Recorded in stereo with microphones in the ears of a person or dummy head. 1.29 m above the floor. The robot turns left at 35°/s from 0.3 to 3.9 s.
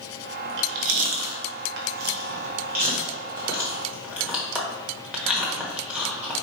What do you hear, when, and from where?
0.5 s chewing: 50° right (ahead or behind), 1.0 m; by 6.3 s 5° right (ahead or behind), 1.0 m